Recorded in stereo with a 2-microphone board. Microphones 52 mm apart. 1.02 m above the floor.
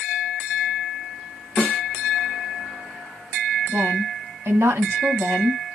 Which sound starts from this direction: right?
A woman speaking, at 3.7 s.